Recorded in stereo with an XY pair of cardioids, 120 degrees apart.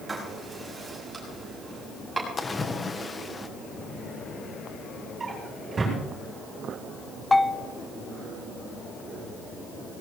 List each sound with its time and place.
0.1 s writing: 15° right, 7 m
2.4 s a splash: 25° left, 1.5 m
5.2 s a drawer: 25° right, 8.5 m
7.3 s a bell: 15° left, 0.8 m